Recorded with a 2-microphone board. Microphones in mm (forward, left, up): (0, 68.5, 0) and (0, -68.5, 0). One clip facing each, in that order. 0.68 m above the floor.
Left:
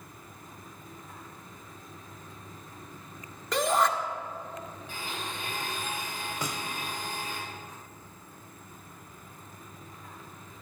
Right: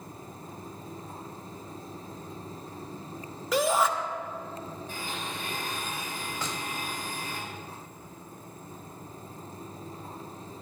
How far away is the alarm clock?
I don't hear an alarm clock.